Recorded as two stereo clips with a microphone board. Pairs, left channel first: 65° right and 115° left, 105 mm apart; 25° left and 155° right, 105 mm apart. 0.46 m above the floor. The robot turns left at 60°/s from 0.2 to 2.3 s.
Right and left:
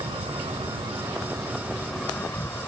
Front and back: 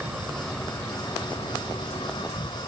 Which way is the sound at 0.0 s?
125° left.